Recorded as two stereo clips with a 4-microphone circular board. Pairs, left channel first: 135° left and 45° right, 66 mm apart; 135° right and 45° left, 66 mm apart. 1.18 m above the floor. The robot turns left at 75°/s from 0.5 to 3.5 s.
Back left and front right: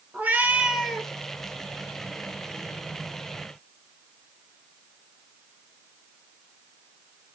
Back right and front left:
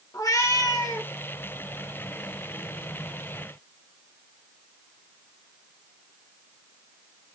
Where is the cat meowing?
110° right, 2.5 m; by 1.1 s 155° right, 2.5 m.